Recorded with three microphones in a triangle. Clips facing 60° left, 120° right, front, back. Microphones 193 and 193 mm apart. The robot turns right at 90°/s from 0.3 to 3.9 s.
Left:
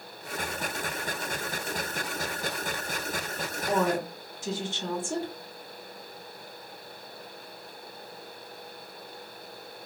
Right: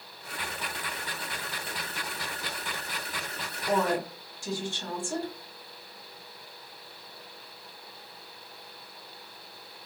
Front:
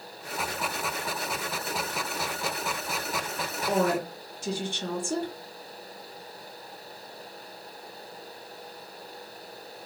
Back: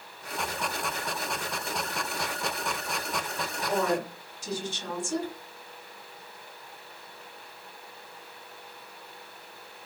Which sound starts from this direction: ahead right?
A woman speaking, at 3.7 s.